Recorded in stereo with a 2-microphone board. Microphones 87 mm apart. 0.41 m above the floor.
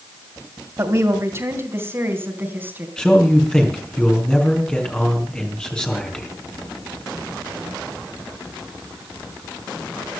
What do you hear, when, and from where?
0.8 s a woman speaking: 35° right (ahead or behind), 2.5 m; by 2.9 s 20° right (ahead or behind), 3.5 m
3.0 s a man speaking: 10° left (ahead or behind), 4 m